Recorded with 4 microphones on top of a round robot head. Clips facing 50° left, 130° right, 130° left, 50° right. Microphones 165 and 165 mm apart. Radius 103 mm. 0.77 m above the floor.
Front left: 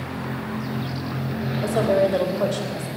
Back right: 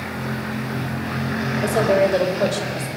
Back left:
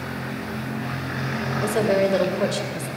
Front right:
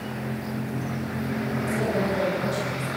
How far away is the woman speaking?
About 3.5 m.